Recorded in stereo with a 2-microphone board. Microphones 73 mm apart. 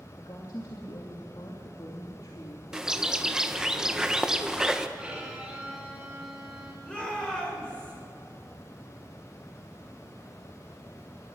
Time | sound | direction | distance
0.2 | a woman speaking | 60° left (ahead or behind) | 2.5 m
2.7 | a bird | 10° right (ahead or behind) | 1.1 m
5.0 | a violin | 10° right (ahead or behind) | 6 m
6.8 | a shout | 15° left (ahead or behind) | 7.5 m